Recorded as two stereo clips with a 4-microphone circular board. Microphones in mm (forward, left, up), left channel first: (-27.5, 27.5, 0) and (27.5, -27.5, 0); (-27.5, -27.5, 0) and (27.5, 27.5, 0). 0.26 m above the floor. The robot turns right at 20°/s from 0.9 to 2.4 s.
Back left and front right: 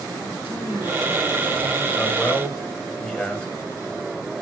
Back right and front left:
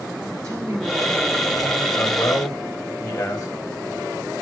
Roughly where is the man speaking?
Behind right.